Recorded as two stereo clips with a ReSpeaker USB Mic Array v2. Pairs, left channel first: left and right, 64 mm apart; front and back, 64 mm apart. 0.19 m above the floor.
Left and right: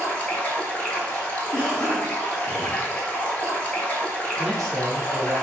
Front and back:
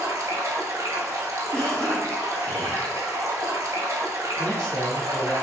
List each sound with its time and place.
0.0 s running water: 155° left, 0.8 m
1.5 s a cough: 40° left, 1.4 m
4.4 s a man speaking: 10° left, 1.2 m